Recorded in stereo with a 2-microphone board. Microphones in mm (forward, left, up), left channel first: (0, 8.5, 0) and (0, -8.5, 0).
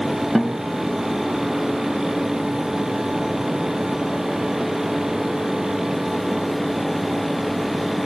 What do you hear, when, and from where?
0.3 s a guitar: 5° right (ahead or behind), 0.7 m